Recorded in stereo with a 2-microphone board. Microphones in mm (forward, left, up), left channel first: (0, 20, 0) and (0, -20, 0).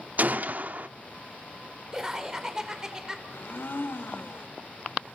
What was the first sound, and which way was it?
A gunshot, 45° right (ahead or behind).